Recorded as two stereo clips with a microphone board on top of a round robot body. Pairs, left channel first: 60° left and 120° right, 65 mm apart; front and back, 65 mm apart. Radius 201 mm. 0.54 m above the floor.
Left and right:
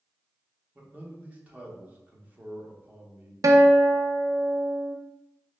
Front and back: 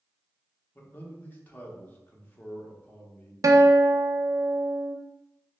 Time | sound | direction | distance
0.8 | a man speaking | 55° right | 1.1 m
3.4 | a guitar | 150° right | 0.5 m